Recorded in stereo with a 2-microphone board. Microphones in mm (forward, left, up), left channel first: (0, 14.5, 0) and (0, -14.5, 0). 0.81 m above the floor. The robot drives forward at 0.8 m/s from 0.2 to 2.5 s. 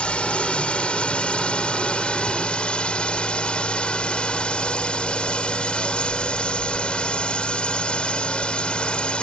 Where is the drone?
40° left (ahead or behind).